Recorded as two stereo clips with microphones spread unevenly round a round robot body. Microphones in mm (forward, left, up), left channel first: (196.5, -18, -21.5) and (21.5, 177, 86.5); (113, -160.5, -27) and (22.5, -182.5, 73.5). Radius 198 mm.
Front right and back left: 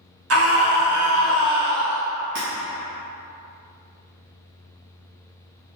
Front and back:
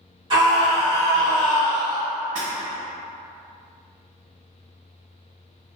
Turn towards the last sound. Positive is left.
turn(degrees=160)